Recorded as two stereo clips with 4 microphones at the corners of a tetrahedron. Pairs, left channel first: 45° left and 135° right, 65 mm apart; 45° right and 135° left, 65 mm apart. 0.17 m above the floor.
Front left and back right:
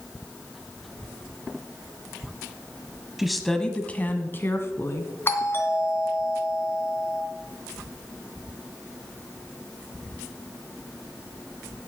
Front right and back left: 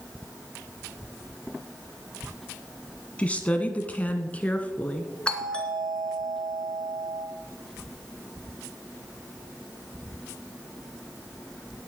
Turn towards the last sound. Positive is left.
turn(degrees=20)